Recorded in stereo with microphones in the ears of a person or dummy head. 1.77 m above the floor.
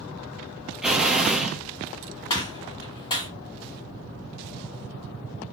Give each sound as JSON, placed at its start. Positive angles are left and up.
{"t": 0.8, "sound": "an explosion", "side_deg": -5, "distance_m": 0.8}
{"t": 2.3, "sound": "a gunshot", "side_deg": 25, "distance_m": 1.6}